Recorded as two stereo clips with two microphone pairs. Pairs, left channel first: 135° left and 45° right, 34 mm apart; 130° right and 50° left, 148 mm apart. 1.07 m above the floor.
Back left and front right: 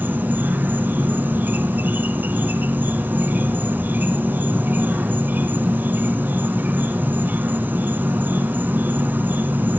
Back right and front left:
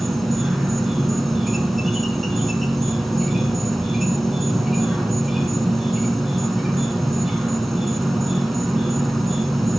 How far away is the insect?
About 2.5 m.